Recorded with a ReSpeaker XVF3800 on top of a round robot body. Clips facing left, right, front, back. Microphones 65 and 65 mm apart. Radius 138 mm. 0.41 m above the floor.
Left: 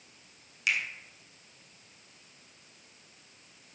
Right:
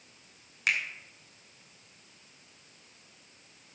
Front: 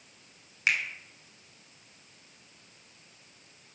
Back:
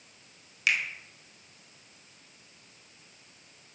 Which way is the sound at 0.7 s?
55° right.